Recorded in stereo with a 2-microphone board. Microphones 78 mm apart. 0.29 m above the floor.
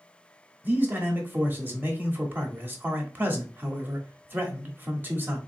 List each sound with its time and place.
0.6 s a man speaking: 25° right (ahead or behind), 0.9 m